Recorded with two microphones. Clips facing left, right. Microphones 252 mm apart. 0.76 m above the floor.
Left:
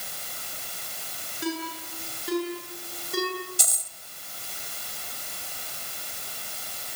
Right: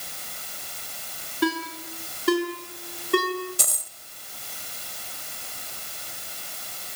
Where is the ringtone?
85° right, 6.5 m.